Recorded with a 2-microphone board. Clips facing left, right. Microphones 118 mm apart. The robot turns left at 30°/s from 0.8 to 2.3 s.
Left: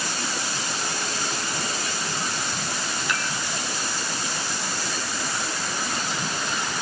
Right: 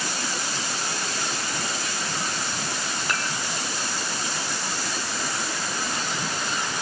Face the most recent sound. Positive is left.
turn(degrees=-45)  # may be behind; listen again after turning